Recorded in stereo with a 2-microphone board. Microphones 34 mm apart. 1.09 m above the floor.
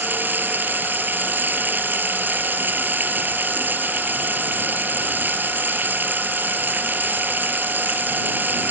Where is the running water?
75° right (ahead or behind).